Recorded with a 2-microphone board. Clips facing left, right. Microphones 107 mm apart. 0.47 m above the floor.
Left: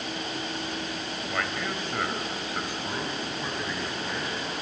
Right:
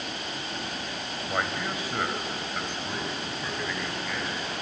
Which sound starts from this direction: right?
A man speaking, at 1.3 s.